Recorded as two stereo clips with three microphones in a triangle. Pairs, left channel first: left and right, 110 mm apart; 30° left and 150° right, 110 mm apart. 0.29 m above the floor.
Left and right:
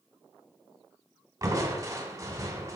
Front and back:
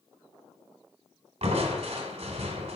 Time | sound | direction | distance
1.4 | crushing | 145° right | 1.4 m